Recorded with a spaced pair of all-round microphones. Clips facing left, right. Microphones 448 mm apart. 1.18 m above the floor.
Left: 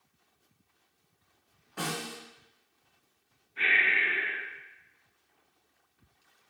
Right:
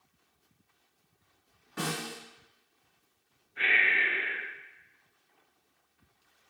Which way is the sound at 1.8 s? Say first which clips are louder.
Right 1 dB; 35° right (ahead or behind).